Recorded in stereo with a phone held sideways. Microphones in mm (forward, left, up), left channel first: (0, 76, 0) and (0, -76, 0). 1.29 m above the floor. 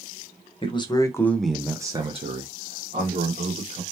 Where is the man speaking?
35° left (ahead or behind), 0.7 m; by 3.8 s 60° right (ahead or behind), 1.3 m.